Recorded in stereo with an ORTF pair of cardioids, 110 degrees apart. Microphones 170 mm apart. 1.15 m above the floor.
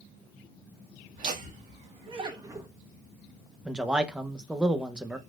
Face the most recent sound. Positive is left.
turn(degrees=-5)